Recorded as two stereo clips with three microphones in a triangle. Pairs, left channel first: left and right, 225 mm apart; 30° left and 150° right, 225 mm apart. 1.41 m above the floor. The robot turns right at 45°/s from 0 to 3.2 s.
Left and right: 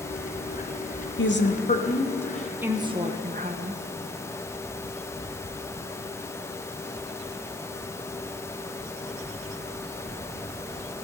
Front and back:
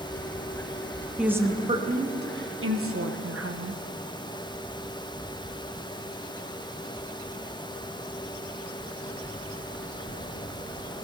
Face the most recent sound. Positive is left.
turn(degrees=-145)